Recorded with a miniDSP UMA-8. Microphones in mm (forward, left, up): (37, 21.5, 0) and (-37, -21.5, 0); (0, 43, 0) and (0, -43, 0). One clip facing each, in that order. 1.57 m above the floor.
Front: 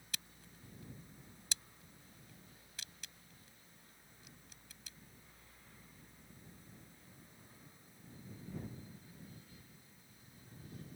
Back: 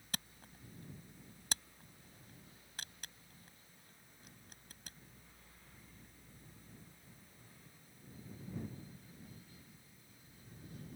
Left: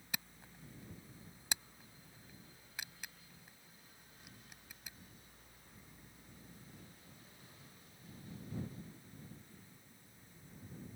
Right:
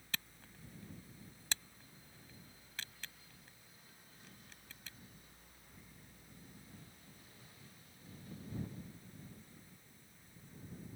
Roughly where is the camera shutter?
Behind.